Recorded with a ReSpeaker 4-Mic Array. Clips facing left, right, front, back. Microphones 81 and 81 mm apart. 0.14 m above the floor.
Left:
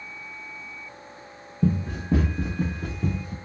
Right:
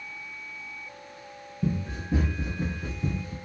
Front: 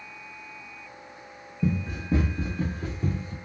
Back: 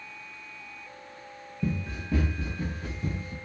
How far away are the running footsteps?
About 0.8 m.